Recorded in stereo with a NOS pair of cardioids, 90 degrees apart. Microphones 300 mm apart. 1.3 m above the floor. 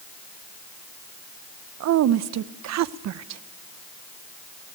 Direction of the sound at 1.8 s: 65° right.